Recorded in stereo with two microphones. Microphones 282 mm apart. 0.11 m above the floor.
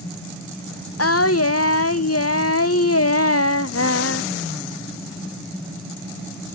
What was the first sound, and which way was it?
Singing, 50° left (ahead or behind).